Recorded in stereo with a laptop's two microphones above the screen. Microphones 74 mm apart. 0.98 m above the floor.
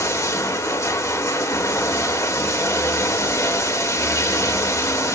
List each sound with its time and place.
0.0 s running water: 40° left (ahead or behind), 1.7 m